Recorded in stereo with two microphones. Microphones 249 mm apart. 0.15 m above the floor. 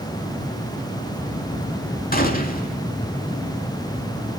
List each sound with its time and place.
2.1 s a gunshot: 35° left (ahead or behind), 0.7 m